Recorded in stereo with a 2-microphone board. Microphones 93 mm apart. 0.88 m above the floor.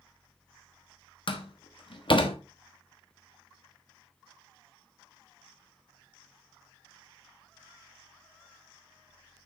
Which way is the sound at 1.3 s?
60° left (ahead or behind).